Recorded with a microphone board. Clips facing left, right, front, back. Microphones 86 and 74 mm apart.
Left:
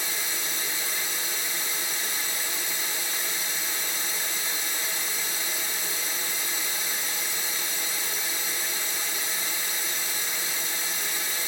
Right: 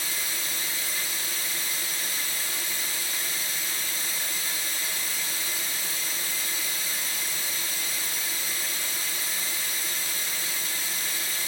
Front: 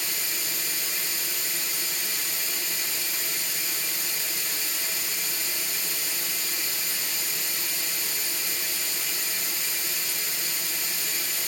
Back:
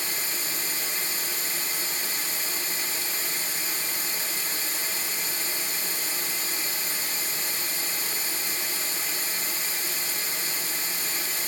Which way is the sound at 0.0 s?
145° left.